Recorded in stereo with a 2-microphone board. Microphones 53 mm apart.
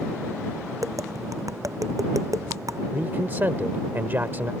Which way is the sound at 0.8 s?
75° right (ahead or behind).